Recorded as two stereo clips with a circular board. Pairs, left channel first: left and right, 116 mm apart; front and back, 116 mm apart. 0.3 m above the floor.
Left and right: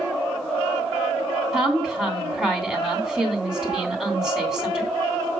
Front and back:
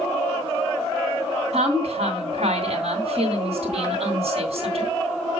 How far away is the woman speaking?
About 3 m.